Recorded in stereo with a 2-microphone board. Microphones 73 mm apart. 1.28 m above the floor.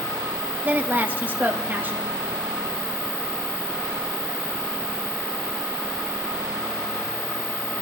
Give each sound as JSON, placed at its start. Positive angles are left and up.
{"t": 0.6, "sound": "a woman speaking", "side_deg": -25, "distance_m": 1.9}